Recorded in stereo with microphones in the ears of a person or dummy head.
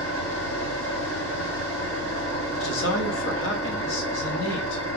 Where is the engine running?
75° left (ahead or behind), 2.5 m.